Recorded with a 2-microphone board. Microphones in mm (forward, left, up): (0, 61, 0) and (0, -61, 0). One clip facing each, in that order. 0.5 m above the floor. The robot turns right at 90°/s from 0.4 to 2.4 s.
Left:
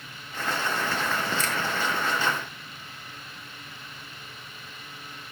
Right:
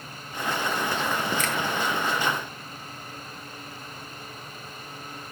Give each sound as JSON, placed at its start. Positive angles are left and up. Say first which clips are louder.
{"t": 1.4, "sound": "a finger snap", "louder": "right 1 dB", "side_deg": 35, "distance_m": 1.1}